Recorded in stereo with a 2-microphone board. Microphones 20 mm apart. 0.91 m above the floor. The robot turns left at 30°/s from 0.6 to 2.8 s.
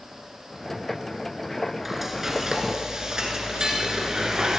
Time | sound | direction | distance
1.9 | frying | 5° right (ahead or behind) | 2.5 m